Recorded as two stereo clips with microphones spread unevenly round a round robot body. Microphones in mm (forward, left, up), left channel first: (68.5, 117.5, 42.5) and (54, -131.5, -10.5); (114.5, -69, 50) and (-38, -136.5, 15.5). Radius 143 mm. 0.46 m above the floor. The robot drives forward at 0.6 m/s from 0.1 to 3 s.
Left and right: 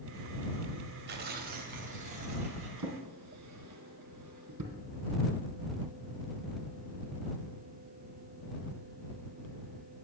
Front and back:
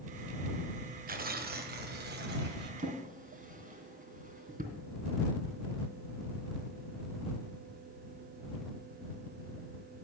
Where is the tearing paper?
140° right, 1.2 m; by 2.9 s 160° right, 2 m.